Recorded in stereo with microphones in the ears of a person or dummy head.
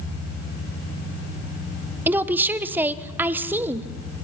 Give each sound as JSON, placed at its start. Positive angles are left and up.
{"t": 2.1, "sound": "a woman speaking", "side_deg": -15, "distance_m": 1.0}